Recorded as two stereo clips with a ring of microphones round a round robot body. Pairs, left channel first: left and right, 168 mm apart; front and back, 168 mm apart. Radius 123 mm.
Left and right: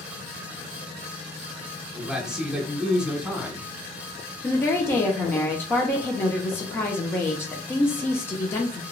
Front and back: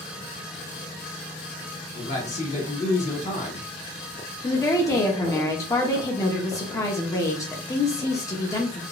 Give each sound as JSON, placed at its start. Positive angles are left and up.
{"t": 1.9, "sound": "a man speaking", "azimuth_deg": -5, "distance_m": 1.4}
{"t": 4.4, "sound": "a woman speaking", "azimuth_deg": 35, "distance_m": 0.7}